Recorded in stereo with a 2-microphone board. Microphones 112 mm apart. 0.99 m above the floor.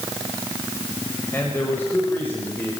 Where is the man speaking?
20° left (ahead or behind), 5.5 m; by 2.8 s 15° left (ahead or behind), 4.5 m.